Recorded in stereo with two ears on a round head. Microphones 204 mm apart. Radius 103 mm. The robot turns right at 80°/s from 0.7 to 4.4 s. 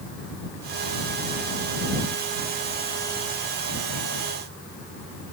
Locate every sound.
Only background noise.